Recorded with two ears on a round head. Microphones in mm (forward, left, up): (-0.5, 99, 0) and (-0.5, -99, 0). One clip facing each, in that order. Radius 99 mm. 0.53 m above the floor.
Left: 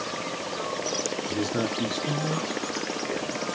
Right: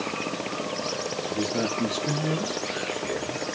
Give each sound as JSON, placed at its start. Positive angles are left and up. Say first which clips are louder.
{"t": 1.3, "sound": "a man speaking", "louder": "right 1 dB", "side_deg": 15, "distance_m": 0.8}